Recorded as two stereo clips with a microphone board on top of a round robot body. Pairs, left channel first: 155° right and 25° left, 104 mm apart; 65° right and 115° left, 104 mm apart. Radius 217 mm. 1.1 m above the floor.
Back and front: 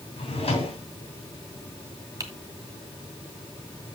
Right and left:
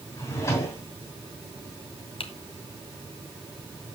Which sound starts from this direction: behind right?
A drawer, at 0.2 s.